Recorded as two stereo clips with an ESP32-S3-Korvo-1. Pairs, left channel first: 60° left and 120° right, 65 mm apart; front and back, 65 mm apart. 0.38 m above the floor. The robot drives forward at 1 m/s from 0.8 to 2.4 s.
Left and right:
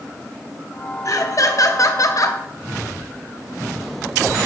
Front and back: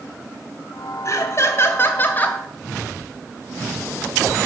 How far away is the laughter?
About 3 m.